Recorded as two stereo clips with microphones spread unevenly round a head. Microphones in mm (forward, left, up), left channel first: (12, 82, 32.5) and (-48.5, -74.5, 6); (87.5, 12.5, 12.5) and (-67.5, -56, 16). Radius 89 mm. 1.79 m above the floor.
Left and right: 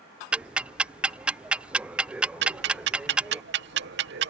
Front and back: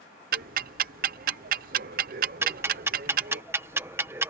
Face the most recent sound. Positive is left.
turn(degrees=-80)